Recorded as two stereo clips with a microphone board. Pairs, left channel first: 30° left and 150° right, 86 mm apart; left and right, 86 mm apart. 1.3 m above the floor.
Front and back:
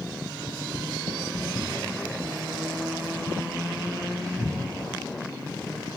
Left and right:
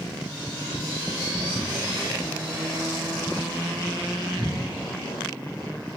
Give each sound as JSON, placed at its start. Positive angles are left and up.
{"t": 1.3, "sound": "footsteps", "azimuth_deg": -115, "distance_m": 1.6}